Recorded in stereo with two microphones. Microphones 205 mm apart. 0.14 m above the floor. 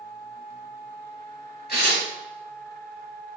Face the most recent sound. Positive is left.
turn(degrees=55)  # may be behind; listen again after turning